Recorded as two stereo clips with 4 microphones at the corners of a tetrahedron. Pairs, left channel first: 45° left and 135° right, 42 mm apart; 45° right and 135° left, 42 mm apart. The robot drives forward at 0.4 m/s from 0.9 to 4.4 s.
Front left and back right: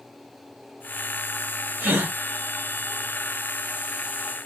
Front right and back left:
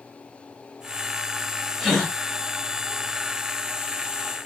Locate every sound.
1.8 s a gasp: 145° right, 3.5 m